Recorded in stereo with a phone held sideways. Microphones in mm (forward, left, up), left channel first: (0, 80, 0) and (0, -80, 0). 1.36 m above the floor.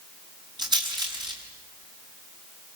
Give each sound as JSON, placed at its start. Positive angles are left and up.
{"t": 0.6, "sound": "a rattle", "side_deg": -25, "distance_m": 6.5}